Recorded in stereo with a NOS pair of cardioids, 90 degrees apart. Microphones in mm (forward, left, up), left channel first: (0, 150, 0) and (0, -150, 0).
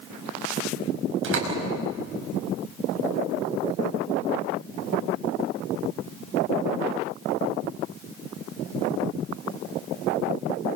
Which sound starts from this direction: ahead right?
A door slam, at 1.2 s.